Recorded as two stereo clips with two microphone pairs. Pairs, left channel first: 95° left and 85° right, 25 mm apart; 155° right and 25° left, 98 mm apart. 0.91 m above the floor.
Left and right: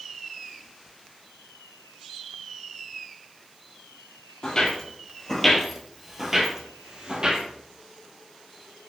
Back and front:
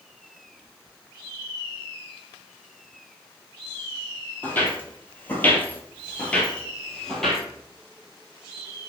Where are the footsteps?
140° left, 1.2 m; by 7.4 s 70° right, 1.2 m.